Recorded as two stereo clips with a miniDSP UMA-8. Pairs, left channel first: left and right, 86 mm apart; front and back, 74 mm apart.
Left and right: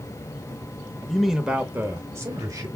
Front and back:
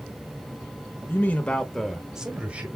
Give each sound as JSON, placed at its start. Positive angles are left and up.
{"t": 1.1, "sound": "a man speaking", "azimuth_deg": 10, "distance_m": 1.2}